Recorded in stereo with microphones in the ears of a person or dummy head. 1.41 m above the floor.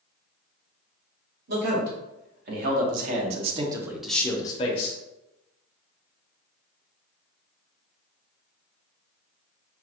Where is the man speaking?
75° right (ahead or behind), 2.0 m; by 5.0 s 45° left (ahead or behind), 0.9 m.